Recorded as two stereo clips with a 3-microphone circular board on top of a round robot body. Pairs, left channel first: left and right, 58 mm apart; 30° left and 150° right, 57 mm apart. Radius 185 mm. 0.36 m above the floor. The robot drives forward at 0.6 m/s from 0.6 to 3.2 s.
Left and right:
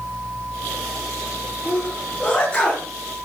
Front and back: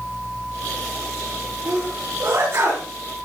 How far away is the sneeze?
About 7 m.